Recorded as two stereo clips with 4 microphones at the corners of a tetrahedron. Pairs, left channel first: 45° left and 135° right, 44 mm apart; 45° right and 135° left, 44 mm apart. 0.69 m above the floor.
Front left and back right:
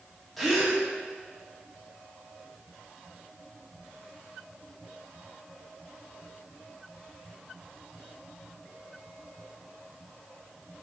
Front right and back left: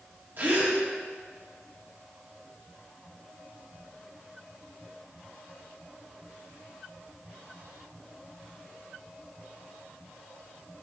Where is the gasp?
135° left, 1.3 m.